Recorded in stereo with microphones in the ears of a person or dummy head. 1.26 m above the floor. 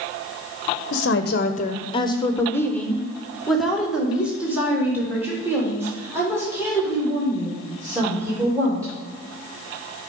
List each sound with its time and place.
0.9 s a woman speaking: 65° left (ahead or behind), 0.7 m; by 8.9 s 20° right (ahead or behind), 4.5 m